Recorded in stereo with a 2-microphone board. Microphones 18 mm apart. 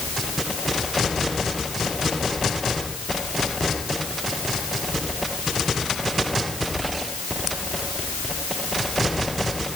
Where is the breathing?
No breathing in this recording.